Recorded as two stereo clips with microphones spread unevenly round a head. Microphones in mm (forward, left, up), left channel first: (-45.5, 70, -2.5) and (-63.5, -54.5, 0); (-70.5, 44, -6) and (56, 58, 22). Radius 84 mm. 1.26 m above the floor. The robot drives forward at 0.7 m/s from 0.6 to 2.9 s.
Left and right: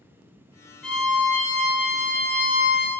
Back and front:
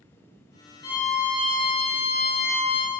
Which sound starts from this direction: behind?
A violin, at 0.8 s.